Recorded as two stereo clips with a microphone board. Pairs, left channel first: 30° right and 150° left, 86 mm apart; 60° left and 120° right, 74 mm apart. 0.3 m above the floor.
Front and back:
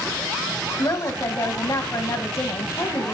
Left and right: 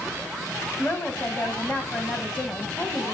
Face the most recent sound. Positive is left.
turn(degrees=0)